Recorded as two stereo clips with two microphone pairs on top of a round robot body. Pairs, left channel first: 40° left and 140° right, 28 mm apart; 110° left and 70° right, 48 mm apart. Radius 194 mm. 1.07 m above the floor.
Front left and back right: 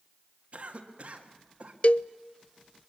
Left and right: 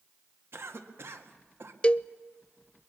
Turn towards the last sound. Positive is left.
turn(degrees=50)